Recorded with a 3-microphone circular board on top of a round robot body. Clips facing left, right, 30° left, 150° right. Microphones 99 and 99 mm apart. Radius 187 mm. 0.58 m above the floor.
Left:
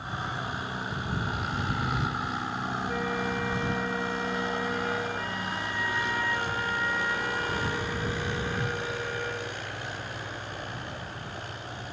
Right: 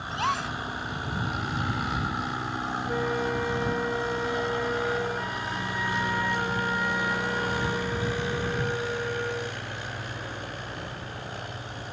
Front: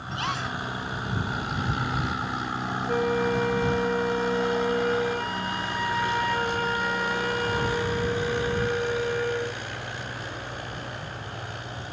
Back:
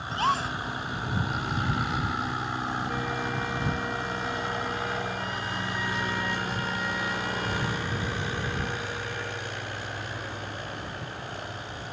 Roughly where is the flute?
Ahead.